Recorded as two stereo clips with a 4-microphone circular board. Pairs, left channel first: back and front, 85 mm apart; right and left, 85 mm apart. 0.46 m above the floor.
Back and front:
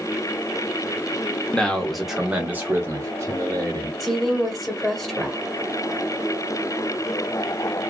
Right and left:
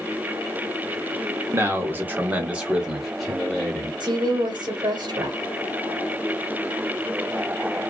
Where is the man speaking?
115° left, 1.0 m; by 3.9 s 10° right, 1.3 m.